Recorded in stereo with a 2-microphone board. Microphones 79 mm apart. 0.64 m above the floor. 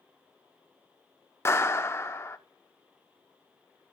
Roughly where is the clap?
Left.